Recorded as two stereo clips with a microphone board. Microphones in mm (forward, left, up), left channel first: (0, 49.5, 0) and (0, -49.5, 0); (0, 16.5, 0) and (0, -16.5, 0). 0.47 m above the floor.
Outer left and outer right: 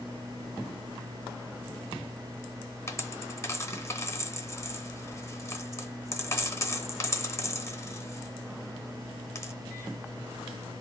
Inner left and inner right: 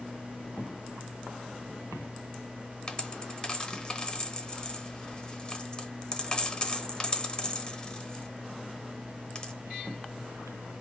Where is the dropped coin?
30° left (ahead or behind), 0.8 m.